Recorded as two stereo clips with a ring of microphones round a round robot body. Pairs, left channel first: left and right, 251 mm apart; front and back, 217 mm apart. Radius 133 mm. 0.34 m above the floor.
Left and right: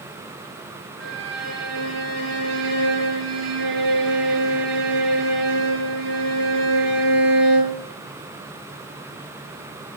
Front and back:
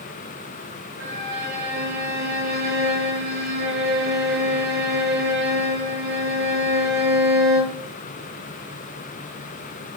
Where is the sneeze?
No sneeze in this recording.